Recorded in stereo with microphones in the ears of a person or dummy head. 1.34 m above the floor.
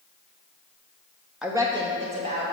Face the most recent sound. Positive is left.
turn(degrees=-40)  # may be behind; listen again after turning